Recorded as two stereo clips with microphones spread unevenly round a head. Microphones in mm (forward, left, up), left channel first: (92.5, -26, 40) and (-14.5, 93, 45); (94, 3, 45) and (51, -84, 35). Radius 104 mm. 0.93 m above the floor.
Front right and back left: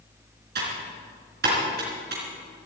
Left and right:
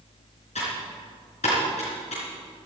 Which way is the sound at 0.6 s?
115° left.